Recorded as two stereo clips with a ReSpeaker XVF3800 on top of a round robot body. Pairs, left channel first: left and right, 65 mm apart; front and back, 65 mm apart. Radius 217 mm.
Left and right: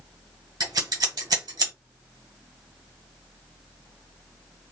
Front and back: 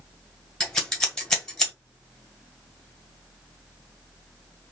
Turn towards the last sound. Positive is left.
turn(degrees=-80)